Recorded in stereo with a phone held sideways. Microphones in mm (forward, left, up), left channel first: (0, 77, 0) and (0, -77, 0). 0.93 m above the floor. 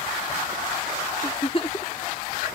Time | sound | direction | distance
1.2 | a giggle | 35° left (ahead or behind) | ?